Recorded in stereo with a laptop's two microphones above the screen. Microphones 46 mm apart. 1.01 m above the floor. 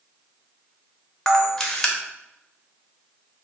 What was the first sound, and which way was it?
A camera shutter, 10° left (ahead or behind).